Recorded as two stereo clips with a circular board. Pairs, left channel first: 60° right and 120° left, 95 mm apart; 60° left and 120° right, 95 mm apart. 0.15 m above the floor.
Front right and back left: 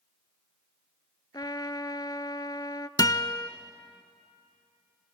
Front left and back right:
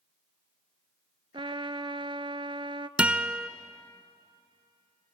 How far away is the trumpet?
About 0.6 m.